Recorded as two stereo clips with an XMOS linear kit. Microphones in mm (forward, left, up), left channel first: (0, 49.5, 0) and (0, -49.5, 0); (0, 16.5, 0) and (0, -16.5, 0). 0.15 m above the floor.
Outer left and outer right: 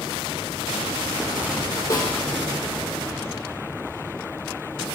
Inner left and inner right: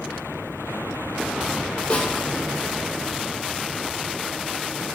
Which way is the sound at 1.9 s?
35° left (ahead or behind).